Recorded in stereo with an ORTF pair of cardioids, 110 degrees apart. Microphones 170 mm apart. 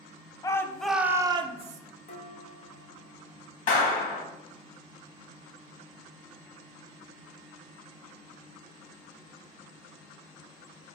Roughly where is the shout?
Ahead.